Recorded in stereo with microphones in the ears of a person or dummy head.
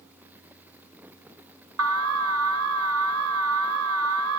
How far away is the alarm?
About 0.8 m.